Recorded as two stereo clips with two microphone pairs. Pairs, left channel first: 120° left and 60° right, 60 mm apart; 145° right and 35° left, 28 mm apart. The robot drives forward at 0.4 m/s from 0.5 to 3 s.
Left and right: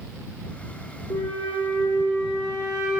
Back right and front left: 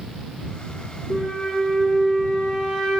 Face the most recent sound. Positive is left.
turn(degrees=140)